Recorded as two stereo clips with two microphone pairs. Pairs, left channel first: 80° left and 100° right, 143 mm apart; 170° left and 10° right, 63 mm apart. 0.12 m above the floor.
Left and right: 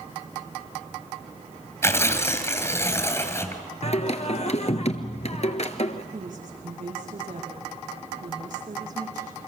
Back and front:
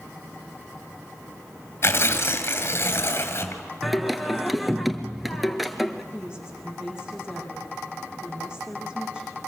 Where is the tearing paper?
145° left, 2.5 m.